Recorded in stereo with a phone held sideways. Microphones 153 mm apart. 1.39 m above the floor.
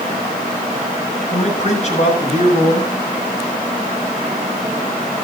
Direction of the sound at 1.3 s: 45° left (ahead or behind).